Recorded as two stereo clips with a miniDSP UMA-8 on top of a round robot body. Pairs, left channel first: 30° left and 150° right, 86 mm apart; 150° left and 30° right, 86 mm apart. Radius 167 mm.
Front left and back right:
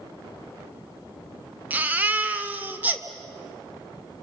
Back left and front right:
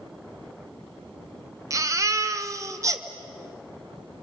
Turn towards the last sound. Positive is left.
turn(degrees=-80)